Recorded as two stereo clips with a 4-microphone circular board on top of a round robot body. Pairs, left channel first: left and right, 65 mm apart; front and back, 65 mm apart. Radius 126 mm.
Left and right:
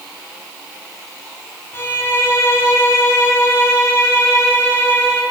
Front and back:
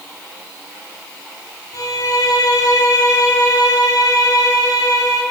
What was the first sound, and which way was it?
A violin, 35° left.